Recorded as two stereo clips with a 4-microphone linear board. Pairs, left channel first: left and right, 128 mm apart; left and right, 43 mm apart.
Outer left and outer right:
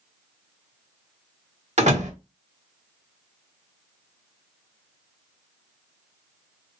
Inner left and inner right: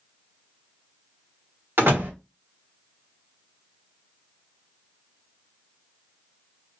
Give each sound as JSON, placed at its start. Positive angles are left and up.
{"t": 1.8, "sound": "a door slam", "side_deg": -65, "distance_m": 1.6}